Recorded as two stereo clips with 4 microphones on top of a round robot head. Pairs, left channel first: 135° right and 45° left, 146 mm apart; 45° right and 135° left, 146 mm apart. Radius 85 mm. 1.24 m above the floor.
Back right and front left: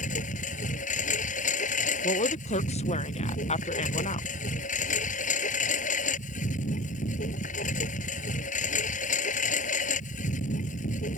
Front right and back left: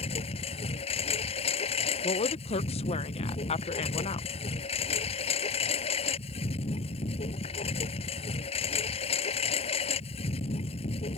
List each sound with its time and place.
0.0 s a lawn mower: 95° right
2.0 s a woman speaking: 90° right